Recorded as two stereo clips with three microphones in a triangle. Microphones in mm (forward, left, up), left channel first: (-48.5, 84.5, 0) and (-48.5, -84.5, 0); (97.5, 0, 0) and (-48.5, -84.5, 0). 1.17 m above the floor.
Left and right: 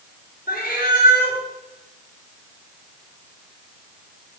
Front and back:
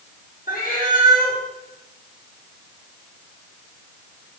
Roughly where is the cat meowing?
Ahead left.